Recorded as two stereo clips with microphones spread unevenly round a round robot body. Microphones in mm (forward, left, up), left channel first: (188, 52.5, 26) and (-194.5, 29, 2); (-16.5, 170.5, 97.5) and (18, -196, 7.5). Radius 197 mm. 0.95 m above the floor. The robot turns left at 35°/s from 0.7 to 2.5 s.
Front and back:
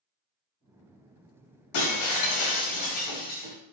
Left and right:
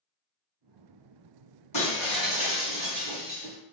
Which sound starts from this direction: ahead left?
Breaking glass, at 1.7 s.